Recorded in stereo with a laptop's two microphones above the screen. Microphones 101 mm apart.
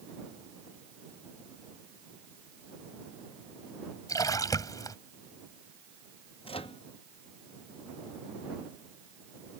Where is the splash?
35° left (ahead or behind).